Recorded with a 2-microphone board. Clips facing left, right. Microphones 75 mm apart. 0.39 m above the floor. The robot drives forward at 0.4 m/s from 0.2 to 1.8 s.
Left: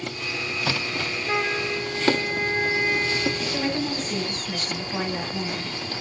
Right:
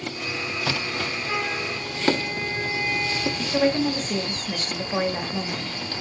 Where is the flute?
35° left (ahead or behind), 0.7 m; by 3.6 s 45° left (ahead or behind), 0.6 m.